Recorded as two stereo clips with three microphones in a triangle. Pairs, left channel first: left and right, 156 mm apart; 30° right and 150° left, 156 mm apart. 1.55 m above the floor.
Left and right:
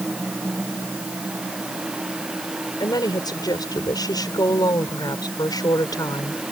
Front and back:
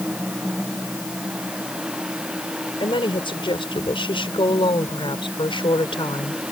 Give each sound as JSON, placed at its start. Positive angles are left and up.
{"t": 2.8, "sound": "a woman speaking", "azimuth_deg": 25}